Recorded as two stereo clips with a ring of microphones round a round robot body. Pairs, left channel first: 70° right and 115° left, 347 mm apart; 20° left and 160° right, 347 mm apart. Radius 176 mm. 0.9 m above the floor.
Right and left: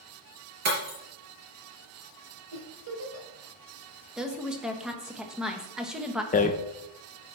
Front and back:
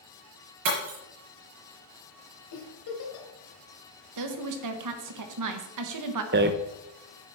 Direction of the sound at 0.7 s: 160° left.